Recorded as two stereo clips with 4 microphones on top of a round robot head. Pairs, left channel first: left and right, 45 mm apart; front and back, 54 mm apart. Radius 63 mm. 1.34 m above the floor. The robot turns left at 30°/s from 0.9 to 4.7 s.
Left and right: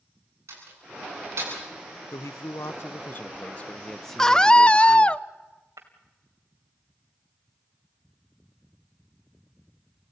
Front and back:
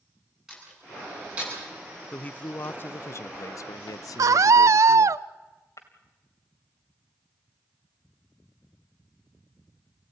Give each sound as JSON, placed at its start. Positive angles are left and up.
{"t": 0.5, "sound": "a door slam", "azimuth_deg": -100, "distance_m": 9.5}
{"t": 2.1, "sound": "a man speaking", "azimuth_deg": 70, "distance_m": 0.6}
{"t": 4.2, "sound": "a scream", "azimuth_deg": 170, "distance_m": 0.7}
{"t": 5.8, "sound": "breaking glass", "azimuth_deg": -50, "distance_m": 2.0}